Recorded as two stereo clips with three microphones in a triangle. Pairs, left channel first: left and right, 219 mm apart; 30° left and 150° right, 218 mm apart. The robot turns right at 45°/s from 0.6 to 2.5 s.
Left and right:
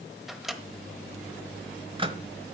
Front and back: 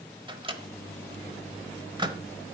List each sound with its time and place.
0.3 s a microwave: 175° right, 1.1 m; by 2.2 s 105° right, 1.1 m